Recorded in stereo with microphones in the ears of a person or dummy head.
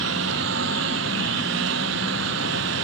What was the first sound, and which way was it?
A lawn mower, 75° right (ahead or behind).